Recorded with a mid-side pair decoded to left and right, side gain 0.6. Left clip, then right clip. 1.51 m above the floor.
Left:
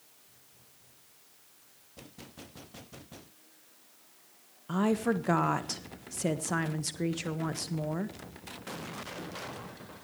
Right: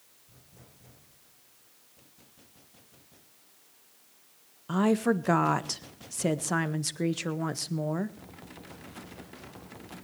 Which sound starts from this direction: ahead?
A woman speaking, at 4.7 s.